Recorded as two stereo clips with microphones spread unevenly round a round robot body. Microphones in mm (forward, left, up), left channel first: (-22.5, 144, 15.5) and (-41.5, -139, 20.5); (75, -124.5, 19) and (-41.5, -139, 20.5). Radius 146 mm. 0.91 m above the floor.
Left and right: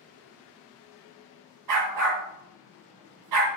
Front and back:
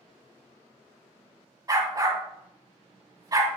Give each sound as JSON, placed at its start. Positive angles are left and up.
{"t": 1.7, "sound": "a dog barking", "azimuth_deg": -115, "distance_m": 2.5}